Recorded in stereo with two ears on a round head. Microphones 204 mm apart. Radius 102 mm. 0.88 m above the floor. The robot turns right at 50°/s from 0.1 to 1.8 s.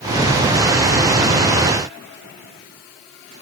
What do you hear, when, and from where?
Only background noise.